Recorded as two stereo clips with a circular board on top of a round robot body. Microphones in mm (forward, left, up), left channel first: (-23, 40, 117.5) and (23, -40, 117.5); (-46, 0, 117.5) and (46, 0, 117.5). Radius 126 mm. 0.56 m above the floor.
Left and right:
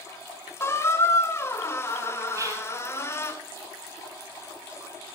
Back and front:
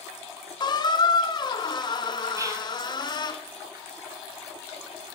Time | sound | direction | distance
0.6 | a squeak | 175° left | 0.6 m
2.4 | whispering | 30° right | 0.7 m